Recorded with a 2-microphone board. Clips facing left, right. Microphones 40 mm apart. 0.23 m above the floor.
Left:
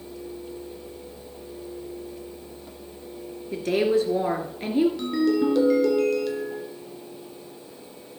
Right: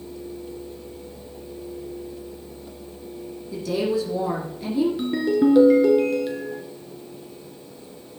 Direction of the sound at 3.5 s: 45° left (ahead or behind).